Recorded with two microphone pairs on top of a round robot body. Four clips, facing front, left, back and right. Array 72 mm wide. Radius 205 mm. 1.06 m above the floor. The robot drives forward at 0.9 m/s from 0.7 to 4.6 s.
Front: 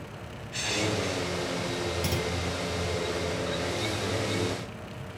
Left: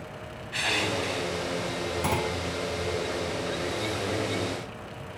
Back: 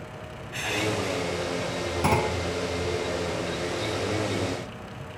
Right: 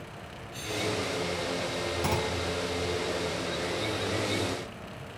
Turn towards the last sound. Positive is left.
turn(degrees=170)